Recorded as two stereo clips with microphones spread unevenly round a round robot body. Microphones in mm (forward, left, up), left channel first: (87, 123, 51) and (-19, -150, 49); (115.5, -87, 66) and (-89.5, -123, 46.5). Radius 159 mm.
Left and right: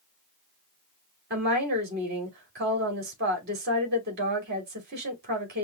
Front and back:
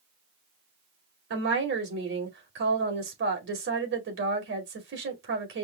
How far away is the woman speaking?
About 2 m.